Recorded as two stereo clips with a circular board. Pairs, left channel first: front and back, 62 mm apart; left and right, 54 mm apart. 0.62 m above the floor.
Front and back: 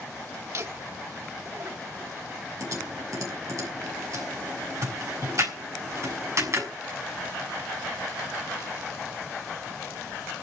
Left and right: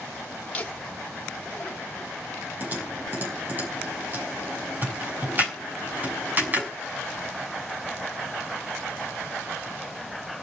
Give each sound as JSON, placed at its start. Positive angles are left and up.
{"t": 0.5, "sound": "laughter", "azimuth_deg": 150, "distance_m": 2.5}
{"t": 2.6, "sound": "typing on a keyboard", "azimuth_deg": -145, "distance_m": 6.5}